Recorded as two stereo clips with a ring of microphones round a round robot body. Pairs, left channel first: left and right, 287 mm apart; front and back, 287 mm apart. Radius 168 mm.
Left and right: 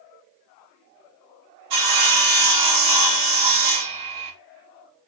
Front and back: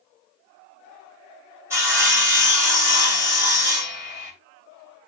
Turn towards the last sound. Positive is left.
turn(degrees=-100)